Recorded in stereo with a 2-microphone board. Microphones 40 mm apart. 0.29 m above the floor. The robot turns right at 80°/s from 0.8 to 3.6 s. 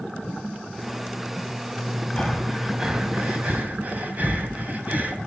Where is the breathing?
25° left (ahead or behind), 1.8 m; by 5.2 s 50° right (ahead or behind), 1.8 m.